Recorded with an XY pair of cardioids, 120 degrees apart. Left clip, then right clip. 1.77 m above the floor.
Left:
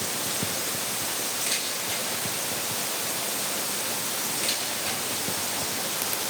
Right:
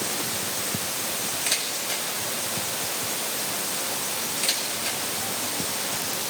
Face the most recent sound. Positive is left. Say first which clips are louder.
# right 4 dB
turn(degrees=-30)